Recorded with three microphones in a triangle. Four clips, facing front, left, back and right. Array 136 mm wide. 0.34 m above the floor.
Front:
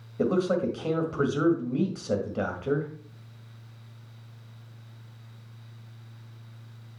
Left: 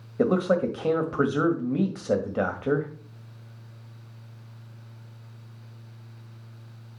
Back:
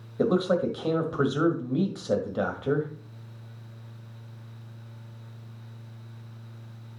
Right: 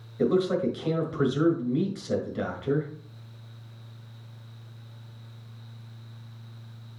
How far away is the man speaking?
About 1.6 m.